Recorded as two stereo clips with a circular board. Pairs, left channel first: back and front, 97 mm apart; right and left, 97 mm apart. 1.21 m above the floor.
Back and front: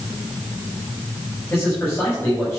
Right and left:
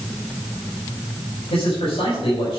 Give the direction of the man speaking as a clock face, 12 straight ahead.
4 o'clock.